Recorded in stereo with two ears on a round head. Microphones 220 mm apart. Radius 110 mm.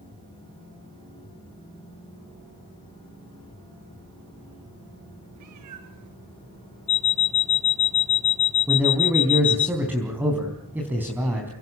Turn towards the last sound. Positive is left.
turn(degrees=-10)  # may be behind; listen again after turning